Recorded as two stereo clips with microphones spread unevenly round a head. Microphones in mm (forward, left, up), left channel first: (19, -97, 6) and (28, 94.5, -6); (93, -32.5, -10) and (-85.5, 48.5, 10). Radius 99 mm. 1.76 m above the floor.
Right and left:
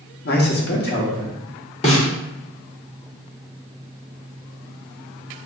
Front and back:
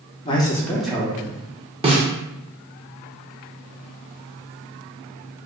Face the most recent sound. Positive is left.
turn(degrees=-145)